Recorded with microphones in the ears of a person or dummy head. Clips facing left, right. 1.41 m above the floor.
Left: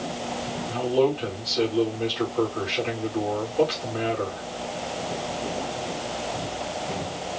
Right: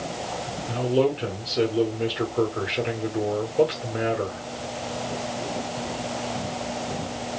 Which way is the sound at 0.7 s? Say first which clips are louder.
Even; 25° right (ahead or behind).